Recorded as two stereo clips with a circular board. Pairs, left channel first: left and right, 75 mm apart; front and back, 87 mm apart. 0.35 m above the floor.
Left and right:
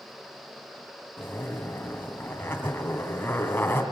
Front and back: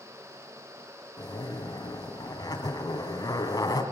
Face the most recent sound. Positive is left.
turn(degrees=30)